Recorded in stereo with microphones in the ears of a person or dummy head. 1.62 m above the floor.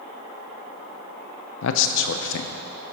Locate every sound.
1.6 s a man speaking: 65° left (ahead or behind), 0.5 m